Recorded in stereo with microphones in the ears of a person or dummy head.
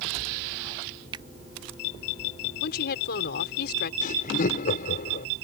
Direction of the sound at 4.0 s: 50° left (ahead or behind).